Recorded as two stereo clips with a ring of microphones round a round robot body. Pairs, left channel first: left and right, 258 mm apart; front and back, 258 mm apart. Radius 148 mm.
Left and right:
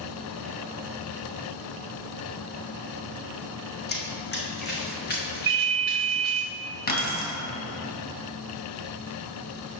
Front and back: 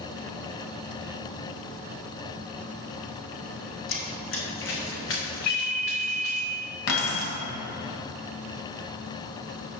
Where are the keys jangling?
35° left, 2.5 m.